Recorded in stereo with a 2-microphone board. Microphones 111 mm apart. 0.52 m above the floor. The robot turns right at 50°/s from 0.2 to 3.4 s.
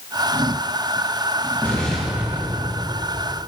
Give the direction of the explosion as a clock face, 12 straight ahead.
7 o'clock.